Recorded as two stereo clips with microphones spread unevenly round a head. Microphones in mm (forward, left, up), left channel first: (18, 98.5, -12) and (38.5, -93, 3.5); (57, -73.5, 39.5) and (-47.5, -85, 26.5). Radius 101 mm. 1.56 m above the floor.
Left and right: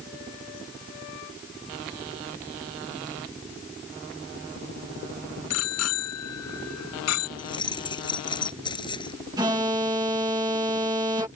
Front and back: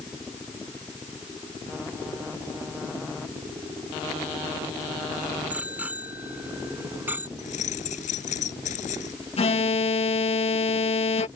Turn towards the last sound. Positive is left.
turn(degrees=-15)